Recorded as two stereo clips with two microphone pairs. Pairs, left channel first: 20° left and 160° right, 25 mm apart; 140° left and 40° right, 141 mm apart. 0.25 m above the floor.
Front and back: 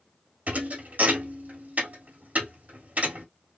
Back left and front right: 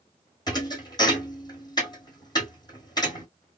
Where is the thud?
160° right, 1.6 m.